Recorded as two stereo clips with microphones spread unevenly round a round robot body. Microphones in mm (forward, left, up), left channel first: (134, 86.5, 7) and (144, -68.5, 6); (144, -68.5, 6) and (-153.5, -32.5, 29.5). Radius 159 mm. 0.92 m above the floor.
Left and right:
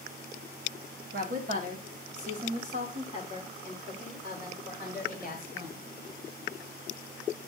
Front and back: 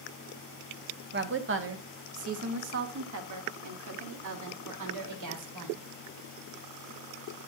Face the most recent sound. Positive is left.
turn(degrees=-165)